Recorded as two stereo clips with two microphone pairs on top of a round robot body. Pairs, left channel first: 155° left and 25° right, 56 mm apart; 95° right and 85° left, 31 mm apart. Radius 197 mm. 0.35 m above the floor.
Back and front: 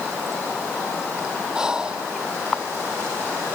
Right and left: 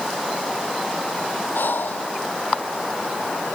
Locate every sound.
1.6 s breathing: 100° right